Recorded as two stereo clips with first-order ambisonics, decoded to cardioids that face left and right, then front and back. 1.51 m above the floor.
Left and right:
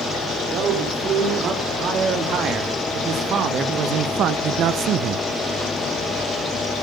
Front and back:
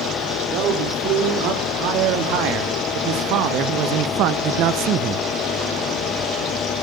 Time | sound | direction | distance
0.5 | a man speaking | 150° right | 3.5 m